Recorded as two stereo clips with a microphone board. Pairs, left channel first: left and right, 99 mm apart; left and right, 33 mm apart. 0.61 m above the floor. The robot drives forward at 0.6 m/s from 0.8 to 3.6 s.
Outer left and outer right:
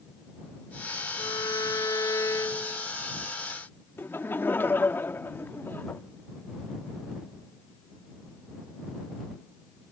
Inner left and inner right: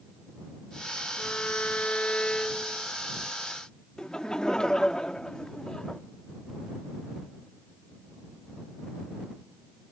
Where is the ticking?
No ticking in this recording.